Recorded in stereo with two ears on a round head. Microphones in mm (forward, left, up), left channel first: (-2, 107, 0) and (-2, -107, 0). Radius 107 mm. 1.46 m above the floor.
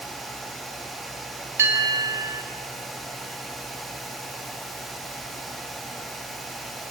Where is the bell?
10° right (ahead or behind), 3.5 m.